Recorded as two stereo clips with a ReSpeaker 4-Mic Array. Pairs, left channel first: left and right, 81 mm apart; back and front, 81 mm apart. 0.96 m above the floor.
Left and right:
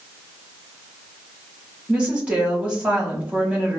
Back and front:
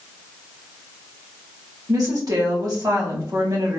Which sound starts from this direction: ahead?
A woman speaking, at 1.9 s.